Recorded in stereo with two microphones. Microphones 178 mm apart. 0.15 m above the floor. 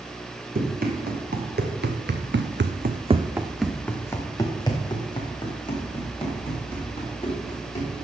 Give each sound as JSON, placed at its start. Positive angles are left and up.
{"t": 0.6, "sound": "running footsteps", "side_deg": -55, "distance_m": 2.5}